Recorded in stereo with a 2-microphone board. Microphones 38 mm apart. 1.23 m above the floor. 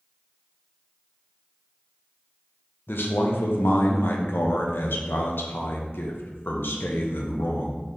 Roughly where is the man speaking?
Left.